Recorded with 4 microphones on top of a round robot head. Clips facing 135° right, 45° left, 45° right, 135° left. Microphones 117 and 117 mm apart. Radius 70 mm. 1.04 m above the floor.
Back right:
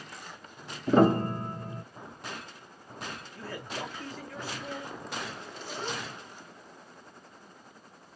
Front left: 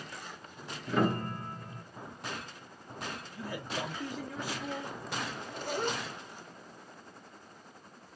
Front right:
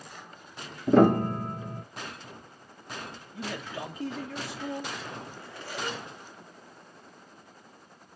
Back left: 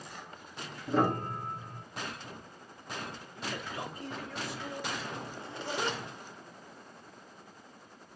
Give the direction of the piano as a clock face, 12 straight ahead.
3 o'clock.